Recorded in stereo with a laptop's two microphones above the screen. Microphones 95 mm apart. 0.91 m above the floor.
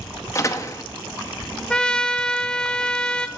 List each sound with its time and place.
0.3 s a door slam: 30° left (ahead or behind), 0.8 m
1.7 s a trumpet: 10° left (ahead or behind), 0.6 m